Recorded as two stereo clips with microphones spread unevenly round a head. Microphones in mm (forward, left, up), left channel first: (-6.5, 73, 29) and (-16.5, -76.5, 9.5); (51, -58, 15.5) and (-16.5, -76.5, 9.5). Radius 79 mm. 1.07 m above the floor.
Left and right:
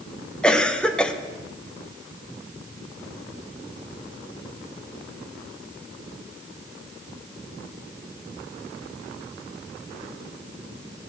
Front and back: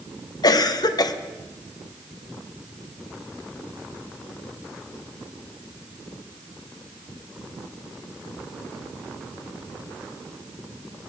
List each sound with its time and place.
0.4 s a cough: straight ahead, 0.8 m